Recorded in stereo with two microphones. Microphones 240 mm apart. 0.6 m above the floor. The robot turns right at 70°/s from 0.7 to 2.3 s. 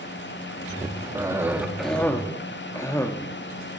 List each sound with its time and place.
1.1 s a cough: 15° right (ahead or behind), 0.7 m; by 3.8 s 10° left (ahead or behind), 0.7 m